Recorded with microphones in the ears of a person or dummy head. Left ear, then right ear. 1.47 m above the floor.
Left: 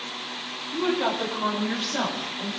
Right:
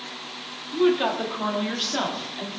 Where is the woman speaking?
55° right (ahead or behind), 3.5 m; by 2.5 s 80° right, 4 m.